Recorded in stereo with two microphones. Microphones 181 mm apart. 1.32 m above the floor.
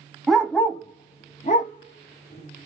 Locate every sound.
0.3 s a dog barking: centre (ahead or behind), 0.8 m; by 2.7 s 60° left (ahead or behind), 1.4 m